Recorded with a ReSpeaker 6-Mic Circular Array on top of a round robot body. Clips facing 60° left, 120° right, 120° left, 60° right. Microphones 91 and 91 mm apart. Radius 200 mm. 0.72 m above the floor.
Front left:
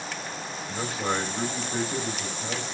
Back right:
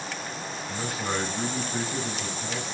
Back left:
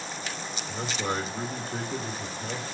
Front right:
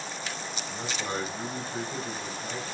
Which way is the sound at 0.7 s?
115° left.